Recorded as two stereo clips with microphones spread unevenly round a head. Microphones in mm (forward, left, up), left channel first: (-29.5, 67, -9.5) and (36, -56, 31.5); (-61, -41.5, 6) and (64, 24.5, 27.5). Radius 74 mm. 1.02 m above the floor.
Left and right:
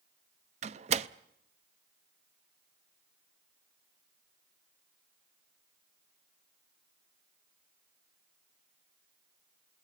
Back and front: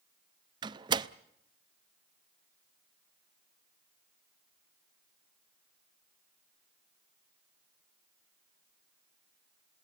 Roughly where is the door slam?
Ahead right.